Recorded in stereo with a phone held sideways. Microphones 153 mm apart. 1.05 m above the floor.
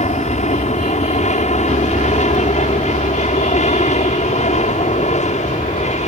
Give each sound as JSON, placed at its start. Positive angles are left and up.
{"t": 0.0, "sound": "an aircraft", "side_deg": 50}